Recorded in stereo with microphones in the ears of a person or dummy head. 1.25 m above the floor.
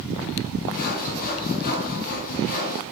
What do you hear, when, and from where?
0.7 s sawing: 55° left (ahead or behind), 1.2 m